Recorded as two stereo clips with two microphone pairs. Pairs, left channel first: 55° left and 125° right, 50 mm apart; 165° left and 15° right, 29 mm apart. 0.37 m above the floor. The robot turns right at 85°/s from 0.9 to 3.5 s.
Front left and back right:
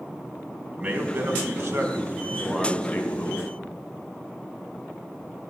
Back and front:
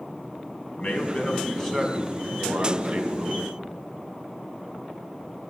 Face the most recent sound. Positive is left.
turn(degrees=35)